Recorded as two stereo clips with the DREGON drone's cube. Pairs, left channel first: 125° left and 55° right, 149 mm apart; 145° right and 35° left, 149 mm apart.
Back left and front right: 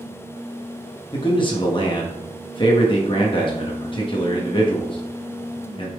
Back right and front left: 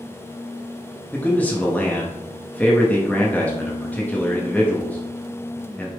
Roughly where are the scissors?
No scissors in this recording.